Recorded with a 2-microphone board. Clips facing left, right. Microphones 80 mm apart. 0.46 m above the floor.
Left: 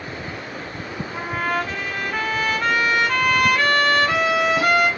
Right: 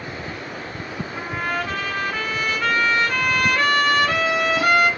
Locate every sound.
1.1 s a trumpet: centre (ahead or behind), 2 m